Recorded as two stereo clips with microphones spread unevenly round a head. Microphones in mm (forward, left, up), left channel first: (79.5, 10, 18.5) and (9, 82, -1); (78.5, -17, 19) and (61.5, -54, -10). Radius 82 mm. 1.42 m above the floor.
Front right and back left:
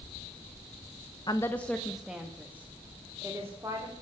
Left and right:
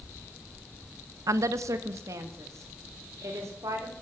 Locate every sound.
1.3 s a woman speaking: 105° right, 0.8 m; by 3.9 s 150° right, 3.5 m